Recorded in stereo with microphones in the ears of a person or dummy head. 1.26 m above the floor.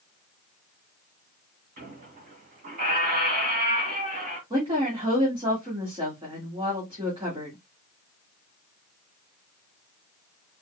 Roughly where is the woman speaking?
Right.